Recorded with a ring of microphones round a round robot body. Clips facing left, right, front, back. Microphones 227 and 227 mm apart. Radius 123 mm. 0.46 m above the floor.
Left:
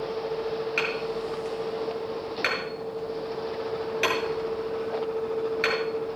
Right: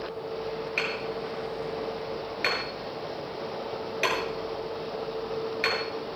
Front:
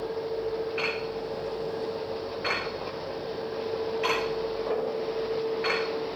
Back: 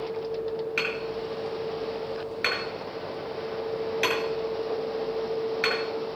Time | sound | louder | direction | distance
0.8 | hammering | left 3 dB, even | 165° left | 7 m